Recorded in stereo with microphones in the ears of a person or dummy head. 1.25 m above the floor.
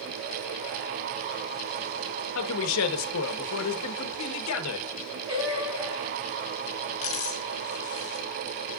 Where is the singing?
20° right (ahead or behind), 4.5 m.